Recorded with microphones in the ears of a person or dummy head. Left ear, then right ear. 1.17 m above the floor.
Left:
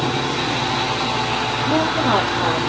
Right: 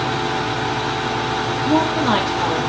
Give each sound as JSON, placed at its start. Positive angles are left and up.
{"t": 1.7, "sound": "a woman speaking", "side_deg": -50, "distance_m": 2.5}